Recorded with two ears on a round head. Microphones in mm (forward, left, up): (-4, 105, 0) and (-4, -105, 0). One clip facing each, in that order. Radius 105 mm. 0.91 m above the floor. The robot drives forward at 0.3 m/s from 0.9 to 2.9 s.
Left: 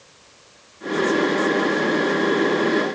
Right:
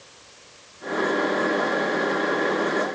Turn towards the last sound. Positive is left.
No sound to turn to.